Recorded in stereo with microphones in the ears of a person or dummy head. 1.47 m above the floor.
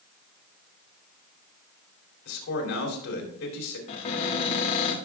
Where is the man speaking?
60° left (ahead or behind), 3.5 m.